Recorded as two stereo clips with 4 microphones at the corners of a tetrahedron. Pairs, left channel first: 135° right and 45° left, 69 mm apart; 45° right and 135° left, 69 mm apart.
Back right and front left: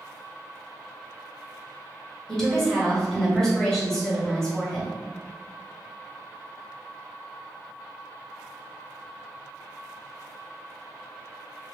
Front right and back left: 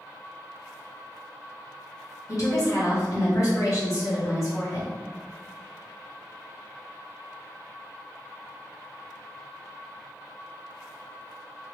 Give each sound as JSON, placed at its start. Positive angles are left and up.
{"t": 2.3, "sound": "a woman speaking", "azimuth_deg": -55, "distance_m": 2.0}